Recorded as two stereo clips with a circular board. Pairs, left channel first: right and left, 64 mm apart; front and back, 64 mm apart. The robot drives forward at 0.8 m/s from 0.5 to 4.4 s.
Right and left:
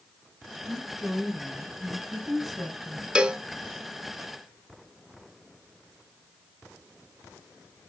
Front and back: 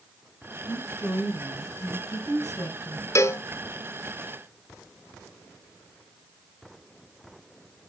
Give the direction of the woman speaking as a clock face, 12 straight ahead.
12 o'clock.